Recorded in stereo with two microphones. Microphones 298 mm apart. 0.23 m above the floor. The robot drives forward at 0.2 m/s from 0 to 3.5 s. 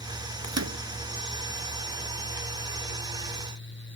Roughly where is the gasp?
No gasp in this recording.